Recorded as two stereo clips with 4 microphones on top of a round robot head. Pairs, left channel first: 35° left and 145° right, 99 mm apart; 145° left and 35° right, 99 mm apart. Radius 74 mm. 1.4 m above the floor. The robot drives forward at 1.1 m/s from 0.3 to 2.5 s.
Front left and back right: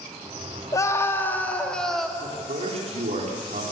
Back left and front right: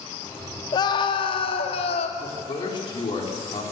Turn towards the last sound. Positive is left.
turn(degrees=-170)